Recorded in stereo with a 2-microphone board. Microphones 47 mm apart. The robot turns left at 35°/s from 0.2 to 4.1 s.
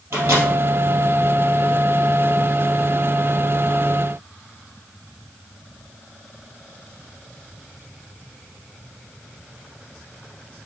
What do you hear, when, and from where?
0.1 s a microwave: 60° right (ahead or behind), 2.0 m